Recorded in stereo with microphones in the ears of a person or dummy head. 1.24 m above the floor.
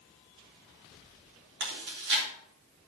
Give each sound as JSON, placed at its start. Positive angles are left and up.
{"t": 1.6, "sound": "chewing", "side_deg": -60, "distance_m": 3.5}